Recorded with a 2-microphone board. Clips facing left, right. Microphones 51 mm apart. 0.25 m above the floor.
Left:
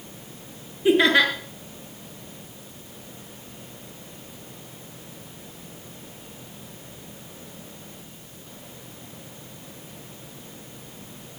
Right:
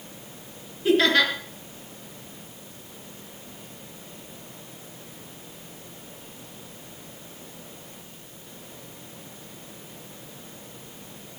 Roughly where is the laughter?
Centre.